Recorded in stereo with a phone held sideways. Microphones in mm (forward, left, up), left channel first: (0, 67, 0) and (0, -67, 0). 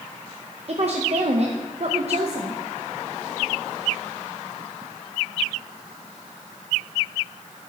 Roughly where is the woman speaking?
Right.